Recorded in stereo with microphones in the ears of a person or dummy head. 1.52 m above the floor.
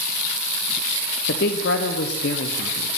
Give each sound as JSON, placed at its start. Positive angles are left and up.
{"t": 1.3, "sound": "a woman speaking", "side_deg": 70, "distance_m": 0.8}